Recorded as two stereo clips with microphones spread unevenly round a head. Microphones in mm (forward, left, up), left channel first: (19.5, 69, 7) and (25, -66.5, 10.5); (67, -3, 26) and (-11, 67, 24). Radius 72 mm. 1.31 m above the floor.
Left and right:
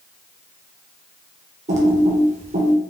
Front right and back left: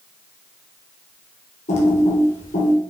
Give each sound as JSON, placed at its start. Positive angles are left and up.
{"t": 1.7, "sound": "typing on a keyboard", "azimuth_deg": -50, "distance_m": 1.8}